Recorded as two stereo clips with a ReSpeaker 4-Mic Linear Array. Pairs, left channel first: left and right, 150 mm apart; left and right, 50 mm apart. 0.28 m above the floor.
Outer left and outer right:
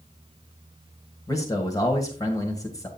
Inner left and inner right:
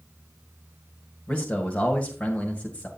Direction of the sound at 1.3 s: 25° left (ahead or behind).